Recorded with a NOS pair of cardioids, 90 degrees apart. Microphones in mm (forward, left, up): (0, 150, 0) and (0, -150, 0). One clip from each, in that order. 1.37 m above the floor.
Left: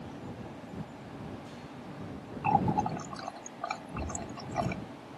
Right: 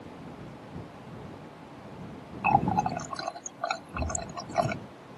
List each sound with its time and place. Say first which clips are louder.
2.4 s a running tap: right 3 dB; 40° right